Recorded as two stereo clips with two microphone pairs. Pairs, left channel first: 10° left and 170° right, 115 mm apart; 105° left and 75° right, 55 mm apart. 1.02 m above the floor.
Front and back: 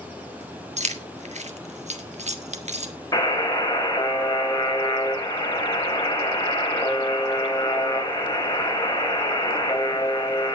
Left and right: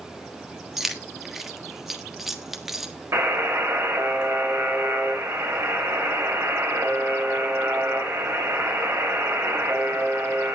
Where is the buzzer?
50° right, 3.5 m.